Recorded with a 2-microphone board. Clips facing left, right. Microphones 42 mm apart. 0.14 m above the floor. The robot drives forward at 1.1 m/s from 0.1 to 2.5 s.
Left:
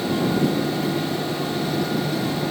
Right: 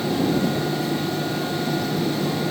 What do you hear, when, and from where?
Only background noise.